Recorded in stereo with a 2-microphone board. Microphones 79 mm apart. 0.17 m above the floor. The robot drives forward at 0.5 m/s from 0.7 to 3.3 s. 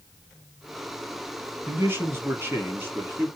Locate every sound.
1.7 s a man speaking: 30° right (ahead or behind), 1.4 m; by 3.3 s 25° right (ahead or behind), 1.6 m